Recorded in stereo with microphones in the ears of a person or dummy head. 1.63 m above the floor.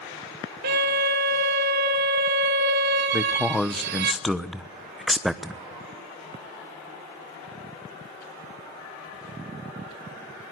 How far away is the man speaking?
About 1.0 m.